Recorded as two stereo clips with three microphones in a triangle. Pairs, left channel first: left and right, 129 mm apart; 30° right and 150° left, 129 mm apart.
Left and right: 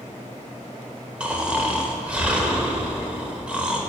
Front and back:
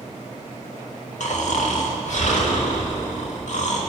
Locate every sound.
1.2 s snoring: 10° right, 1.0 m